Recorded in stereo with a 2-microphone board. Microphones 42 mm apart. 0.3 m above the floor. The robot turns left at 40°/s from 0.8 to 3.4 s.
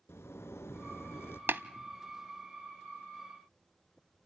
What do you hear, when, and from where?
0.1 s a zipper: 85° left, 0.7 m; by 1.4 s 65° left (ahead or behind), 0.7 m
1.5 s tapping: 55° right (ahead or behind), 0.5 m; by 1.6 s 50° right (ahead or behind), 0.5 m